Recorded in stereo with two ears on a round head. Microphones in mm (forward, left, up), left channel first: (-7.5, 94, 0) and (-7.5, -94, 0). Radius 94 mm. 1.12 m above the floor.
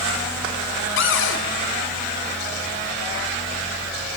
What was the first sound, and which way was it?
A cupboard door, 60° left (ahead or behind).